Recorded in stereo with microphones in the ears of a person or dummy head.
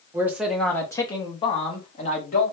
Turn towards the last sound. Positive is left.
turn(degrees=45)  # may be behind; listen again after turning